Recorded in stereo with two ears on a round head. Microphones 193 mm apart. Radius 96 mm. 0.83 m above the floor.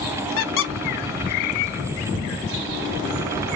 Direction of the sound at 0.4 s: 60° left (ahead or behind).